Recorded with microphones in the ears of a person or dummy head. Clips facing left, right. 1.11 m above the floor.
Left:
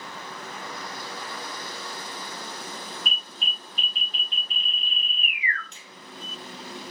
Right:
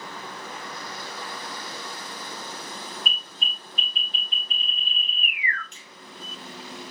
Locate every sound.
3.1 s an alarm: 85° right, 1.7 m
5.7 s a finger snap: 35° left (ahead or behind), 1.1 m